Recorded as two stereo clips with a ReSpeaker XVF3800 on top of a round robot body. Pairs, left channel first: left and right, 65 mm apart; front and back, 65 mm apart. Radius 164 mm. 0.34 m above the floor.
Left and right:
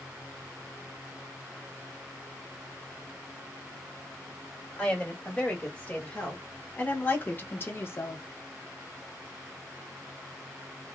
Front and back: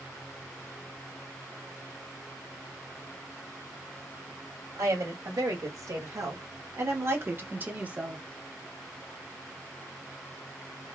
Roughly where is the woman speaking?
Behind.